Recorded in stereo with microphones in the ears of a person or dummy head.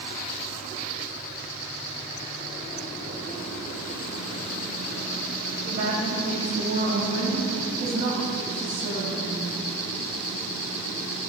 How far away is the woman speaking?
About 6.5 m.